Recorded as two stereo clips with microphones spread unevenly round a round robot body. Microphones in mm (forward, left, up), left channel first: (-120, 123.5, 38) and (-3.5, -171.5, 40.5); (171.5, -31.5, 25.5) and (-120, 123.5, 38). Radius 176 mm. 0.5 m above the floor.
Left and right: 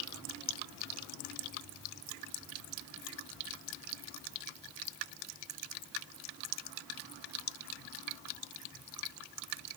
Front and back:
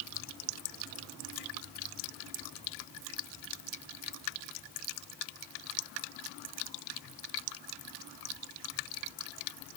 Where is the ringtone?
No ringtone in this recording.